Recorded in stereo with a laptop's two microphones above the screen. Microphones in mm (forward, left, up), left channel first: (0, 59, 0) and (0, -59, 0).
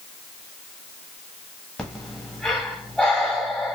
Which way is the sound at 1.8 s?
5° left (ahead or behind).